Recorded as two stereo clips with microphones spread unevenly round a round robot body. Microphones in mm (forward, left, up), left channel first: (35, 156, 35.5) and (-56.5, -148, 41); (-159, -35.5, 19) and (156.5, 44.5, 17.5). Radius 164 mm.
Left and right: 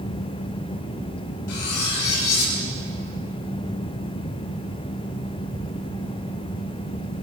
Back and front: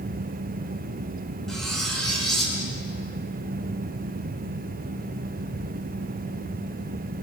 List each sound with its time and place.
1.5 s cutlery clinking: 105° left, 7 m